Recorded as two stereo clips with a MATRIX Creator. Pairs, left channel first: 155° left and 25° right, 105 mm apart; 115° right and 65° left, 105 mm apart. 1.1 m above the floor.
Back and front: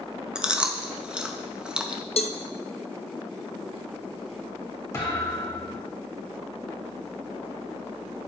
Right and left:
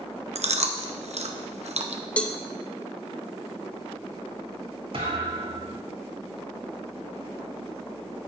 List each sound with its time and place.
0.3 s chewing: 60° left, 0.7 m
2.2 s a cowbell: 170° left, 0.6 m
4.9 s a thud: 95° left, 4.5 m